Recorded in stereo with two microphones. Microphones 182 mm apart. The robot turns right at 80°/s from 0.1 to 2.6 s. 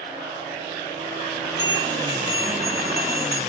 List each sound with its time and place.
1.6 s a bell: 20° right, 2 m; by 3.4 s 65° left, 2 m